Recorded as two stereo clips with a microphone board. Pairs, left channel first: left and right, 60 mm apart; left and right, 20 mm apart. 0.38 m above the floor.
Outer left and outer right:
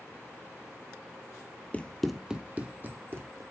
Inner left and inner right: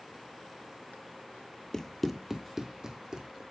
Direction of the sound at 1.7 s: 25° left (ahead or behind).